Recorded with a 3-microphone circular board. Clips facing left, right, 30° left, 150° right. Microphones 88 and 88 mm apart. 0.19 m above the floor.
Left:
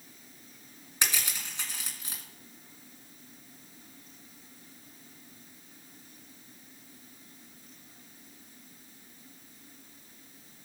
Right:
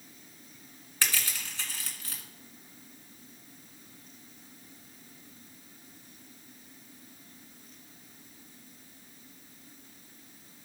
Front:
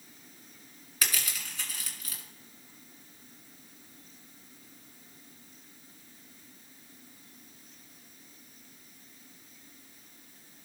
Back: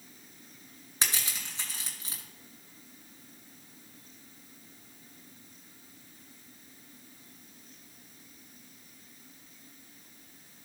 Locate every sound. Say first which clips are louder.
1.0 s crushing: even, even; 155° left, 2.5 m